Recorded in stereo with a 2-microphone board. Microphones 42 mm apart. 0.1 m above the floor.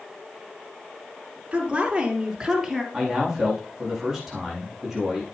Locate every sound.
1.5 s a woman speaking: 25° right (ahead or behind), 2.5 m; by 2.8 s 5° right (ahead or behind), 3 m
2.9 s a man speaking: 5° right (ahead or behind), 6 m